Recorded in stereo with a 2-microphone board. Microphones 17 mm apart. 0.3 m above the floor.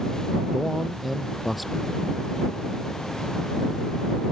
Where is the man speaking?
Centre (ahead or behind).